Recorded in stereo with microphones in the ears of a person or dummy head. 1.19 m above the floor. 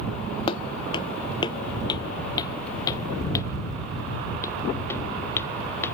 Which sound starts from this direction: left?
Footsteps, at 0.5 s.